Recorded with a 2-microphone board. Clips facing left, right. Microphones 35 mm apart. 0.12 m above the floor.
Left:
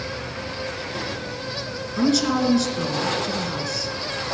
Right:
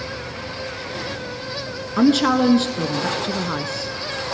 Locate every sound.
2.0 s a woman speaking: 40° right (ahead or behind), 1.4 m